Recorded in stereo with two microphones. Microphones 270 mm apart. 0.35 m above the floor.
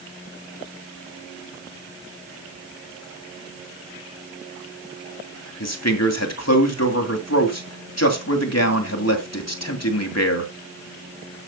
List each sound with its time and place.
5.6 s a man speaking: 65° left (ahead or behind), 2.5 m